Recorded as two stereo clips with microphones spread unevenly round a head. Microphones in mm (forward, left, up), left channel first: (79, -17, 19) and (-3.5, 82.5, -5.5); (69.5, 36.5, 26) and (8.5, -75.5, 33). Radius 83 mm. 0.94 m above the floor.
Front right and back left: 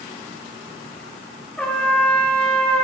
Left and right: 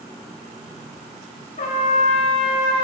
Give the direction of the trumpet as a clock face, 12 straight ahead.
11 o'clock.